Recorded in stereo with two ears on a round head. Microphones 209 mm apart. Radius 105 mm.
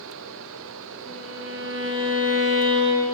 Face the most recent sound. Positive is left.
turn(degrees=-50)  # may be behind; listen again after turning